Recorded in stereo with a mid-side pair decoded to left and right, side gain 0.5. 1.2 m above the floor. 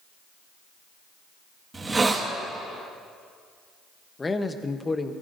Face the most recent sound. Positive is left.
turn(degrees=20)